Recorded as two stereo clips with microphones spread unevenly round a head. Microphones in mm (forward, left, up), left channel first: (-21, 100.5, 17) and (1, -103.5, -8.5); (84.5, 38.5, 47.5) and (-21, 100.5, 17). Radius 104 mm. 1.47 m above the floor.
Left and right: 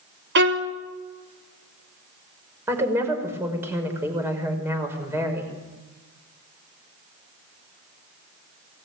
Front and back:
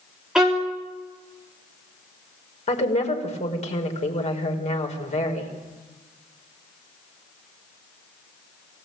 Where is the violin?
120° right, 3 m.